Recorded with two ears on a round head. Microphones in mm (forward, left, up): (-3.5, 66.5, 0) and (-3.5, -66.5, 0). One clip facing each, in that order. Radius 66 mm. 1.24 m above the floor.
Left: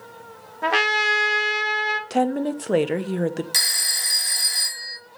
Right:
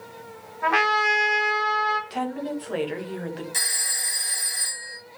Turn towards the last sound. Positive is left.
turn(degrees=75)  # may be behind; listen again after turning